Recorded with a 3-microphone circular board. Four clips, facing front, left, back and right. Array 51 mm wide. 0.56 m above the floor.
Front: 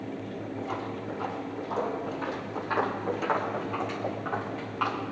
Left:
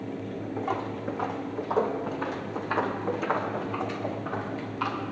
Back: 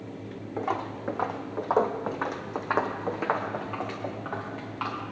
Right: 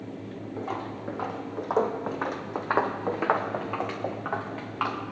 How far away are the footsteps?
About 2 m.